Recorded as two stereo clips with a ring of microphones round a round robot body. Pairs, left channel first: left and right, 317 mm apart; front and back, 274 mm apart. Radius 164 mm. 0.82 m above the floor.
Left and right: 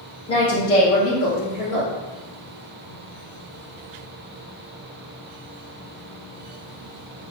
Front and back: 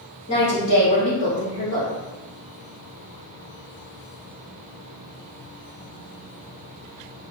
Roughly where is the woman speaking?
Ahead.